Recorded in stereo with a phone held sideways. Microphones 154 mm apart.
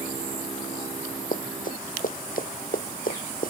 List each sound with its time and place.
1.3 s running footsteps: 60° left (ahead or behind); by 3.5 s 70° left (ahead or behind)